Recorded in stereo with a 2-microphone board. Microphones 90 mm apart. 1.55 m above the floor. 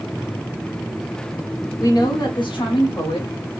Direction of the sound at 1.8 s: 40° left (ahead or behind).